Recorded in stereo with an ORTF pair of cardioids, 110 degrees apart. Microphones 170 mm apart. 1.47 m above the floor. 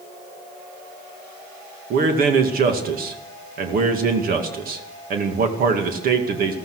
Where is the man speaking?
60° right, 2 m.